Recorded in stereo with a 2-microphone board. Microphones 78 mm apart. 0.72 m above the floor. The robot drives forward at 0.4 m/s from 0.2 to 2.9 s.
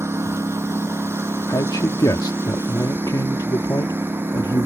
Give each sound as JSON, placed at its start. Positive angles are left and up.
{"t": 0.0, "sound": "a lawn mower", "side_deg": -35}
{"t": 1.5, "sound": "a man speaking", "side_deg": 55}